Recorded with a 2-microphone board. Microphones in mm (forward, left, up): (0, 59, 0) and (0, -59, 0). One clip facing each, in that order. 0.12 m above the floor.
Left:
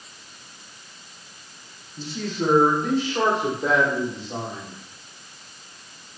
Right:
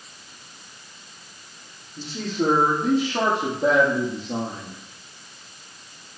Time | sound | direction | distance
2.0 | a man speaking | 70° right (ahead or behind) | 5 m